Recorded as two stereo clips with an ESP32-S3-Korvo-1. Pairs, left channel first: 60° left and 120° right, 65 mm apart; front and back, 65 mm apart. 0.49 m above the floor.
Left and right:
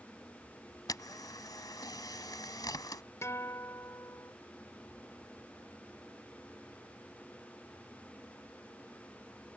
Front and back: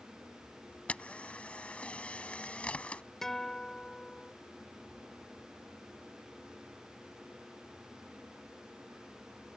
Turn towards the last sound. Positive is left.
turn(degrees=80)